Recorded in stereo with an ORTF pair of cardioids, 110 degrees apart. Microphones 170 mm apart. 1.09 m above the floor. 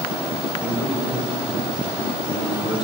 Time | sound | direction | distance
0.4 | a man speaking | straight ahead | 4.5 m